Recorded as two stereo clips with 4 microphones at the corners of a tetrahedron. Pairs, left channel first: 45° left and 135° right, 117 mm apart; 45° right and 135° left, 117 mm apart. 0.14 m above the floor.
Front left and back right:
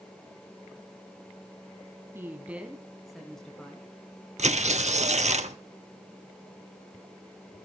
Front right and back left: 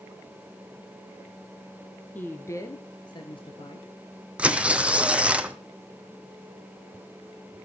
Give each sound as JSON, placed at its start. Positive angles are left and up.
{"t": 2.1, "sound": "a woman speaking", "azimuth_deg": -100, "distance_m": 1.6}
{"t": 4.4, "sound": "tearing paper", "azimuth_deg": -145, "distance_m": 1.1}